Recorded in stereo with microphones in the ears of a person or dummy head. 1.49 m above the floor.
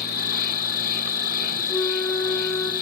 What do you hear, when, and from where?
0.0 s an insect: 50° left (ahead or behind), 2 m
1.7 s a flute: 5° left (ahead or behind), 2.5 m